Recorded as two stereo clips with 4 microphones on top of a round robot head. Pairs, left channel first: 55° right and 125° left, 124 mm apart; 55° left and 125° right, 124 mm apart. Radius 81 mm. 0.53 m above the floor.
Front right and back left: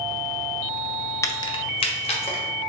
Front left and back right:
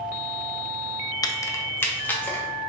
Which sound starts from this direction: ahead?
Keys jangling, at 1.2 s.